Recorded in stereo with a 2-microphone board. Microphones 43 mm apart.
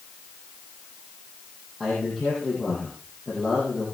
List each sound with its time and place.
1.8 s a man speaking: 20° left (ahead or behind), 8.5 m